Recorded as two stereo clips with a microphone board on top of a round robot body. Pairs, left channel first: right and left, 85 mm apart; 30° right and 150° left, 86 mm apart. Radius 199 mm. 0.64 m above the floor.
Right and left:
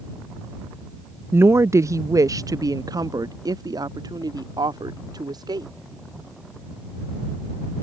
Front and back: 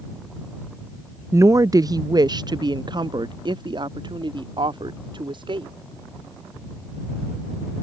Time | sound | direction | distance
1.3 | a woman speaking | 130° left | ?